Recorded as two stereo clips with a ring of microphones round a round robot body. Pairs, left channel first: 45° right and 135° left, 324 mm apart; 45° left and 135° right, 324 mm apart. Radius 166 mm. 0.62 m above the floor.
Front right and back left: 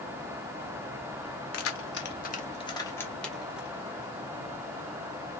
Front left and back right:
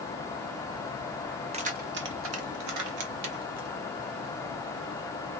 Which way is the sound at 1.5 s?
70° right.